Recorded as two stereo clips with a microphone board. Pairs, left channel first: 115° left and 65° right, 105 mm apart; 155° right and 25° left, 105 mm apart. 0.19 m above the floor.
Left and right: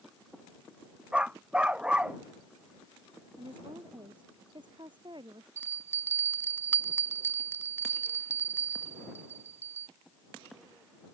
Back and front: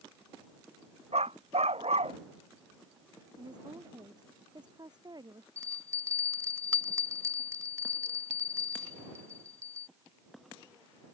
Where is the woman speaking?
25° right.